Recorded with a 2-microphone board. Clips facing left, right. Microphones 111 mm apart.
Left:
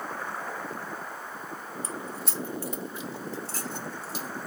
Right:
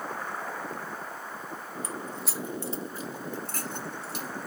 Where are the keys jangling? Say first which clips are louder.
Even; 30° left (ahead or behind), 0.7 m; by 4.3 s 65° right (ahead or behind), 1.9 m.